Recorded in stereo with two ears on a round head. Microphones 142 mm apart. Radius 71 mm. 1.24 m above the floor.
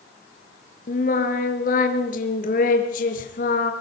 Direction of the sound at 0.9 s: 55° left (ahead or behind).